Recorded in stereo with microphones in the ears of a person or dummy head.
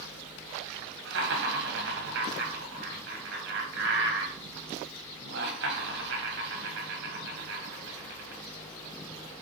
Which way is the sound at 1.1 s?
60° right (ahead or behind).